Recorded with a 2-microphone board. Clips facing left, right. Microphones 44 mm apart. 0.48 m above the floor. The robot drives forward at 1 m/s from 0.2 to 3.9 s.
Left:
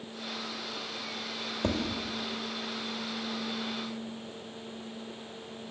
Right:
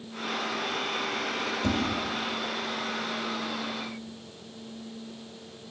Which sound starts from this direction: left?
Tapping, at 1.6 s.